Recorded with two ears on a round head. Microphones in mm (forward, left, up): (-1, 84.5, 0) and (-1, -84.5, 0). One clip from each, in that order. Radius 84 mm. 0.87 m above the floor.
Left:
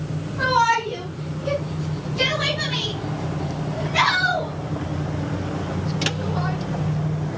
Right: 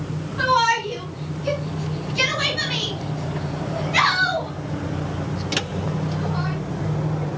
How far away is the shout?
About 7.5 m.